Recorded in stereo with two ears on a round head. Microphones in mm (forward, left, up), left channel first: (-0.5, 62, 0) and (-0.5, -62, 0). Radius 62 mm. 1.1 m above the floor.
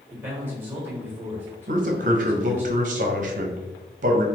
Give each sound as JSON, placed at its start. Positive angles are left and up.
{"t": 0.1, "sound": "a man speaking", "side_deg": -15, "distance_m": 1.3}
{"t": 1.7, "sound": "a man speaking", "side_deg": -60, "distance_m": 0.8}